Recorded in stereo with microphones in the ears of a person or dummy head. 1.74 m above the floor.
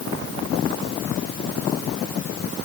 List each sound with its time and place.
Only background noise.